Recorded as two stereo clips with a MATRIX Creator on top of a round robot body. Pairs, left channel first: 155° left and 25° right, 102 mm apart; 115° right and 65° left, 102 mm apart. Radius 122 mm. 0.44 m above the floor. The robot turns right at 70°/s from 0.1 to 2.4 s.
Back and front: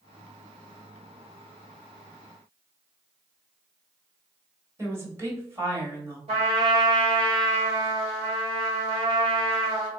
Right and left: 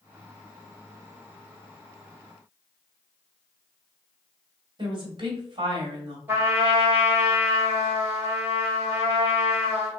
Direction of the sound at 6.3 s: 5° right.